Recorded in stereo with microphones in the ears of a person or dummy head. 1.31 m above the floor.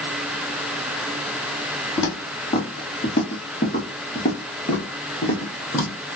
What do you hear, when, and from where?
2.0 s footsteps: 30° left (ahead or behind), 1.9 m; by 6.0 s 10° left (ahead or behind), 1.7 m